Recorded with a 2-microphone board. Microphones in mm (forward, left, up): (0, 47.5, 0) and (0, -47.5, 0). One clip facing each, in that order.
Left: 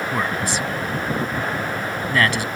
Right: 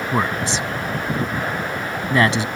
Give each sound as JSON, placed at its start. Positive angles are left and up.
{"t": 0.1, "sound": "a man speaking", "side_deg": -25}